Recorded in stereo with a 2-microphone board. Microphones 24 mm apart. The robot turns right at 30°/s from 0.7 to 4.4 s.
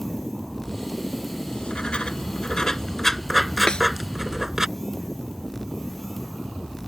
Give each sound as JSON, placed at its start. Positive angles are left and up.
{"t": 1.5, "sound": "writing", "azimuth_deg": 110}
{"t": 3.7, "sound": "a snare drum", "side_deg": 35}